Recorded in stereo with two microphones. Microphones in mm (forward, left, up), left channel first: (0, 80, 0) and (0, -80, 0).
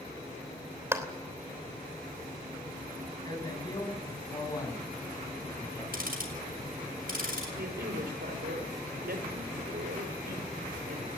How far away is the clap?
About 3 m.